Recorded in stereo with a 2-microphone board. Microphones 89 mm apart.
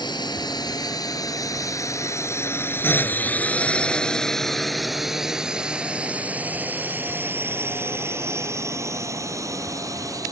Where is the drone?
55° left (ahead or behind); by 10.3 s 40° right (ahead or behind).